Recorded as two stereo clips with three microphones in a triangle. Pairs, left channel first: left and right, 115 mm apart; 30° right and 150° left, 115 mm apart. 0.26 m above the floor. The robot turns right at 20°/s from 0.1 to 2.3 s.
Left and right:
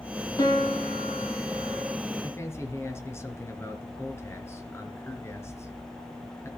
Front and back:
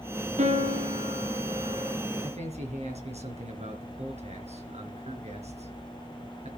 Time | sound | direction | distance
0.4 | a piano | 145° left | 3.5 m
2.2 | a man speaking | 155° left | 4 m